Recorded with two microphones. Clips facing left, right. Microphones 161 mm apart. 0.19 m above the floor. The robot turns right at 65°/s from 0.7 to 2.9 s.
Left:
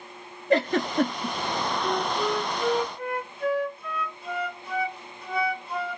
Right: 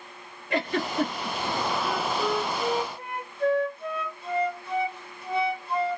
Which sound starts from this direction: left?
A giggle, at 0.5 s.